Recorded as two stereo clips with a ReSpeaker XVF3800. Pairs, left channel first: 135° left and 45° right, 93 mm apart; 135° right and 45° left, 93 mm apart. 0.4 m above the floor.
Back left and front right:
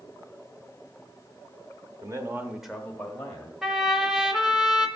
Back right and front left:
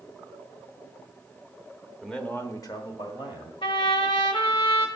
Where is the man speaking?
45° right, 1.0 m; by 3.5 s 160° right, 1.9 m.